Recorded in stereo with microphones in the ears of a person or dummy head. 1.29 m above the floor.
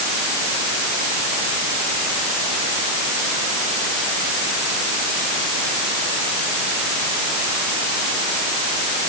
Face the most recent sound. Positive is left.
No sound to turn to.